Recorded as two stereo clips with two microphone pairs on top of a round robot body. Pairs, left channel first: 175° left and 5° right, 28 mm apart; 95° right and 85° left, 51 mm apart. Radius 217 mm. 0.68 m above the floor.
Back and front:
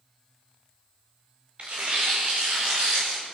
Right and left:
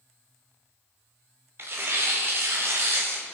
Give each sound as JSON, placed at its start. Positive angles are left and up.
{"t": 1.6, "sound": "tearing paper", "azimuth_deg": 40, "distance_m": 0.7}